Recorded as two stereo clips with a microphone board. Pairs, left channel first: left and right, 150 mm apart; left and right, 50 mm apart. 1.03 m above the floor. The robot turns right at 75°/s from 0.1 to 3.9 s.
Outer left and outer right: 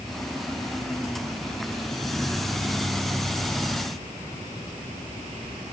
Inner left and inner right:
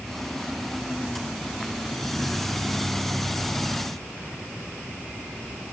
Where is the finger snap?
I don't hear a finger snap.